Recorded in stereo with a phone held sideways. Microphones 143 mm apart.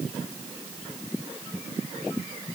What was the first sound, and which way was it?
Only background noise.